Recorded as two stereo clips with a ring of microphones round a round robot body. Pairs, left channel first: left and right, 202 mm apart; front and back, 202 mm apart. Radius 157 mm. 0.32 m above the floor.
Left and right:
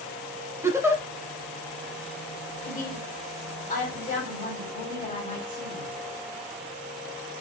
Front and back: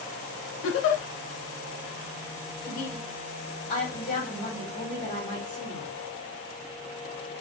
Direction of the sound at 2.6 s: 45° left.